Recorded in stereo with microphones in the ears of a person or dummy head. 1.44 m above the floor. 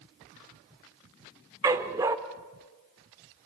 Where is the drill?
No drill in this recording.